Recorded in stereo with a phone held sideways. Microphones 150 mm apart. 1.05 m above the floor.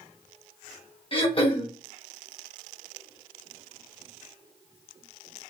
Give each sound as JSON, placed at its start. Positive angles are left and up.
{"t": 1.1, "sound": "throat clearing", "side_deg": 40, "distance_m": 1.1}